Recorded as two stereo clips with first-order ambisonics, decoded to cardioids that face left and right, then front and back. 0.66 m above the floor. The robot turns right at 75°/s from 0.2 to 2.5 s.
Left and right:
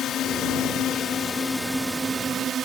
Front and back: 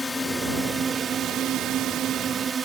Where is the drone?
65° left; by 2.6 s 120° right.